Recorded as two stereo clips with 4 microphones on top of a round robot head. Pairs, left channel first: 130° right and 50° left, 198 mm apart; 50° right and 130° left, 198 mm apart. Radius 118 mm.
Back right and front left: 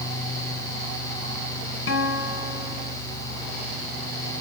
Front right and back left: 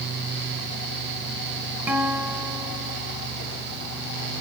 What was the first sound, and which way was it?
A guitar, 150° right.